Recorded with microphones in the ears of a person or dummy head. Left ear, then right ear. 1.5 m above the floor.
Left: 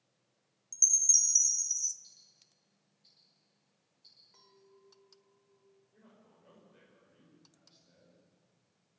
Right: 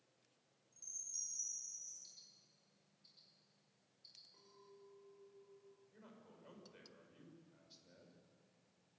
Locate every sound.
0.7 s a chime: 85° left, 1.1 m
2.0 s ticking: 30° left (ahead or behind), 6.5 m
4.3 s a clink: 40° left (ahead or behind), 4.5 m
5.9 s a man speaking: 25° right (ahead or behind), 6.5 m